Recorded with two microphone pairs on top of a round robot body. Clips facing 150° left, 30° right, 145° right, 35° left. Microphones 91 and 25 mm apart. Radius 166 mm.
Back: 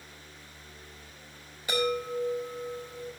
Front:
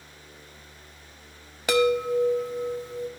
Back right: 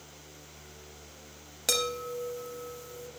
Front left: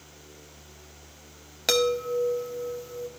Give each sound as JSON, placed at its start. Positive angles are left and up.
{"t": 1.7, "sound": "a chime", "azimuth_deg": -30, "distance_m": 2.5}